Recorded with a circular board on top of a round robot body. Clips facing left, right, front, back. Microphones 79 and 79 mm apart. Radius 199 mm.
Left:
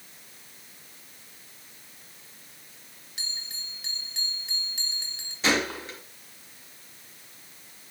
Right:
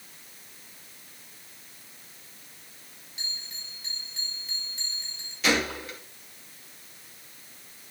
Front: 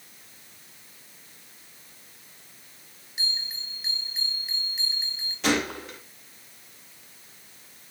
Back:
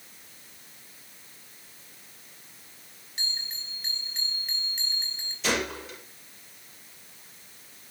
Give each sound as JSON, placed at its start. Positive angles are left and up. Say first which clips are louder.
{"t": 3.2, "sound": "a bell", "louder": "left 1 dB, front 2 dB", "azimuth_deg": 85, "distance_m": 4.5}
{"t": 5.4, "sound": "a gunshot", "louder": "even, front 3 dB", "azimuth_deg": 30, "distance_m": 4.0}